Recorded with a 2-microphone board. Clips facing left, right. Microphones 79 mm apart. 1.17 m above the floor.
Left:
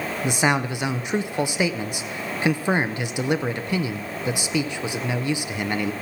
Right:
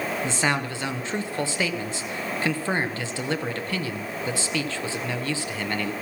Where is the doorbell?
No doorbell in this recording.